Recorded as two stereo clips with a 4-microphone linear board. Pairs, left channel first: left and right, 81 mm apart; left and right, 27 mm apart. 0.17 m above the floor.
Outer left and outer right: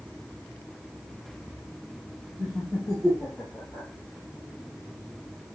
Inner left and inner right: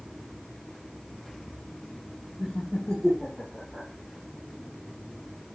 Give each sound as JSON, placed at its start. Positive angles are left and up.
{"t": 2.4, "sound": "laughter", "side_deg": -10, "distance_m": 1.4}